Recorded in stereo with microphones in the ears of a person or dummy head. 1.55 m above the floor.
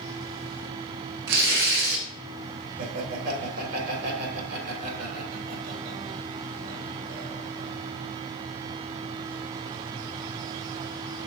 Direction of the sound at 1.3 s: 60° right (ahead or behind).